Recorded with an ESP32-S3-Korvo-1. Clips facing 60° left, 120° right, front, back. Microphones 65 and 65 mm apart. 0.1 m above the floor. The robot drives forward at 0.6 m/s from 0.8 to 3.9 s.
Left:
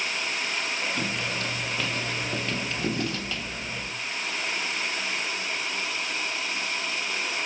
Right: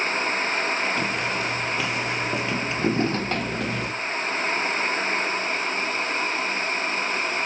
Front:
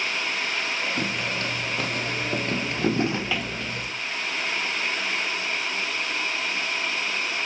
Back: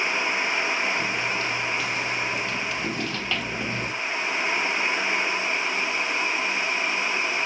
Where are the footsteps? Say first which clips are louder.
Right 4 dB, back 1 dB; 35° right, 3 m; by 3.9 s 140° right, 0.7 m.